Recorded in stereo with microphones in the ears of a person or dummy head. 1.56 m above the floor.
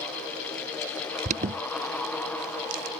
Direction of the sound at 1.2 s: 35° right (ahead or behind).